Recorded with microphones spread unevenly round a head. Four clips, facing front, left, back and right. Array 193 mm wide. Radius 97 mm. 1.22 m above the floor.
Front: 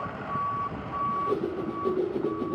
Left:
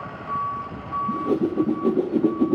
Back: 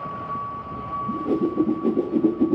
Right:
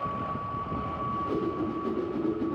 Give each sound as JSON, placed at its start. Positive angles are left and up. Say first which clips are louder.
{"t": 1.1, "sound": "a whoosh", "louder": "left 8 dB, back 6 dB", "azimuth_deg": 130, "distance_m": 2.0}